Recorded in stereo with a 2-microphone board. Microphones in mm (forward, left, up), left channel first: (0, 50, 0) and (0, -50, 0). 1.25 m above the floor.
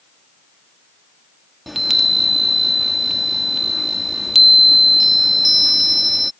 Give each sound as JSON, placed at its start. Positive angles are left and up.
{"t": 1.7, "sound": "a chime", "side_deg": 0}